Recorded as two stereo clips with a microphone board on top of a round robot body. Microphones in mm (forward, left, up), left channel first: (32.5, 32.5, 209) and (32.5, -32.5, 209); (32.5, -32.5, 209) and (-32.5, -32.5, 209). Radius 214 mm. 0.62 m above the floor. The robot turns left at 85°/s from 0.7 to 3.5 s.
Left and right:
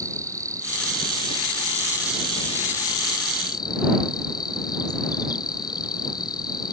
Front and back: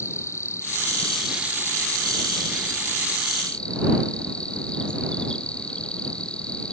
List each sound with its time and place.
0.0 s an insect: 50° right; by 6.7 s 75° left